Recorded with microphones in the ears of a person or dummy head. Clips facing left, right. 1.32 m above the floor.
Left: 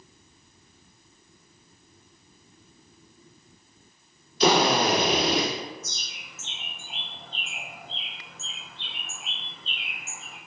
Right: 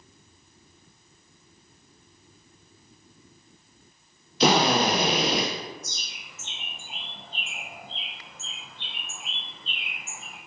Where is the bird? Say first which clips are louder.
Even; 5° right (ahead or behind), 1.0 m.